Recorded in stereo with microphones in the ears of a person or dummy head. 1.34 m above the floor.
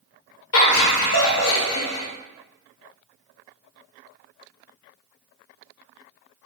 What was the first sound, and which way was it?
Laughter, 65° left (ahead or behind).